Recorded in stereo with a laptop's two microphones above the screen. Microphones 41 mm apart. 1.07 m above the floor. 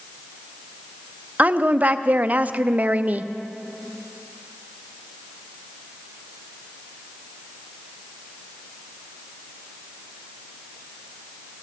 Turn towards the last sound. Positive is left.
turn(degrees=-40)  # may be behind; listen again after turning